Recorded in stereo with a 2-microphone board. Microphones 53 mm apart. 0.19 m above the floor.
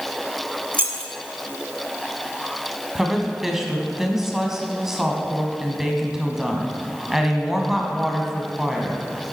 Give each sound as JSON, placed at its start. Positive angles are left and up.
{"t": 0.7, "sound": "keys jangling", "side_deg": -40, "distance_m": 0.9}
{"t": 3.0, "sound": "a woman speaking", "side_deg": -5, "distance_m": 1.1}